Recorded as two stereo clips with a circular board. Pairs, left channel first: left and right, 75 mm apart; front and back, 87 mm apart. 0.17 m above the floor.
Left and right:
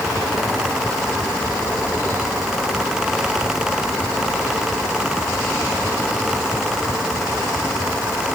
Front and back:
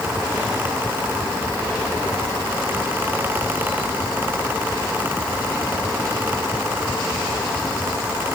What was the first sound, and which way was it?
Only background noise.